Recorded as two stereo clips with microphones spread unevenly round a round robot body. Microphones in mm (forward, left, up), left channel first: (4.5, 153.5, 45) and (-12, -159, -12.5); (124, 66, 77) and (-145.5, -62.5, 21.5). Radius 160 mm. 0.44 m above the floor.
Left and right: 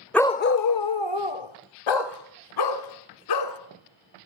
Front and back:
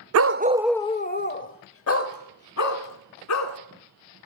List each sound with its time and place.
0.1 s a dog barking: straight behind, 0.6 m; by 3.6 s 60° left, 3 m